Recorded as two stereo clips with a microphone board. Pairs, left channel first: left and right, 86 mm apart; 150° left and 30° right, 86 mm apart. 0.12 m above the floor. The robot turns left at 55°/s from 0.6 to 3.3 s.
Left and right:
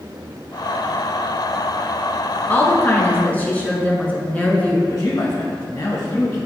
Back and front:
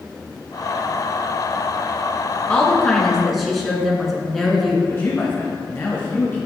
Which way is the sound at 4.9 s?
100° left.